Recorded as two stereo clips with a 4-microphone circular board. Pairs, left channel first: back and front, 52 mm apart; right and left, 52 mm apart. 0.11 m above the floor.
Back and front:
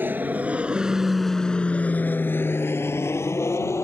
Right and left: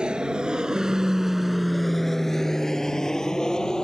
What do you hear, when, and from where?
0.0 s an aircraft: 25° left; by 3.9 s 165° right